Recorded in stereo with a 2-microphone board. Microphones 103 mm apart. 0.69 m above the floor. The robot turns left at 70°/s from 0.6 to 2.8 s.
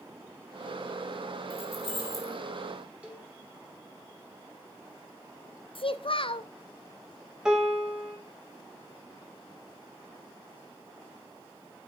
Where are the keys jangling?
80° left, 3 m; by 2.4 s 20° left (ahead or behind), 3 m.